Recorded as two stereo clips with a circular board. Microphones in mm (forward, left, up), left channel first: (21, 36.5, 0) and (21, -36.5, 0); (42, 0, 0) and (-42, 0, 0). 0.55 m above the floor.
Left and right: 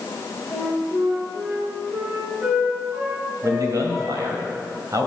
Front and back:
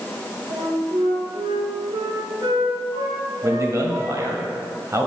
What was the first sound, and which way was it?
A flute, 155° right.